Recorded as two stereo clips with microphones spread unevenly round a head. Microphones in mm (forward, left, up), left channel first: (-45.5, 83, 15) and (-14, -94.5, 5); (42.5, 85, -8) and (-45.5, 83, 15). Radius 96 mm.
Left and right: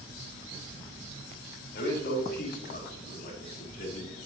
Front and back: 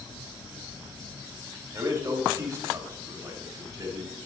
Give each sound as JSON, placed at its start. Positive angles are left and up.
{"t": 1.7, "sound": "a man speaking", "azimuth_deg": 130, "distance_m": 5.0}